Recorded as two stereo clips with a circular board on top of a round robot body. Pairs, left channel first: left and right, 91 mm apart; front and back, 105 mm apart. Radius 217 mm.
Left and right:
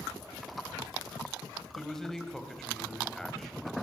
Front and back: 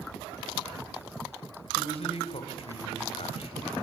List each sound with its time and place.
1.6 s a man speaking: 5° left, 3.5 m